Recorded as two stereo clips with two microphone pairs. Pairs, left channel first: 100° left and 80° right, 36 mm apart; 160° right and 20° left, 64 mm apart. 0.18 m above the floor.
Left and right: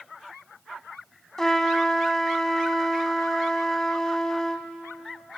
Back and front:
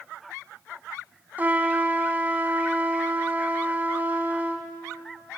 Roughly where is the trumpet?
Ahead left.